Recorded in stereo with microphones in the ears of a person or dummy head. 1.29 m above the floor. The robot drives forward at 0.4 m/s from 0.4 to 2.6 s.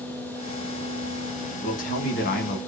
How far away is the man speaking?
About 0.8 m.